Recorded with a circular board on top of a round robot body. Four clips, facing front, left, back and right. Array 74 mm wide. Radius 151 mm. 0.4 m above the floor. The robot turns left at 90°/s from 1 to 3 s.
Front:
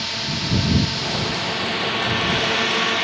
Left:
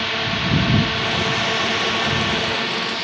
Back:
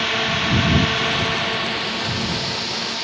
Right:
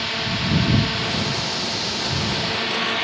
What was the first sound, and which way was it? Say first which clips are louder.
A drone: left 3 dB, back 6 dB; 160° left.